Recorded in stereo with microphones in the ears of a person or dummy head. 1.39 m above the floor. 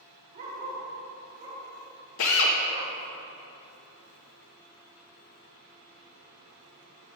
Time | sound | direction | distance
0.3 | a dog barking | 45° right (ahead or behind) | 2 m
2.2 | a drill | 75° left (ahead or behind) | 0.8 m